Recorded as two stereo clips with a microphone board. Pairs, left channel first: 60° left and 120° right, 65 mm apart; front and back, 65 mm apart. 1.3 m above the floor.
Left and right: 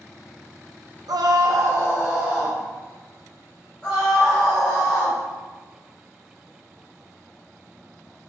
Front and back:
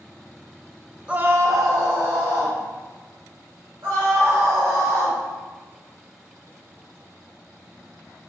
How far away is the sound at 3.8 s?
About 2.0 m.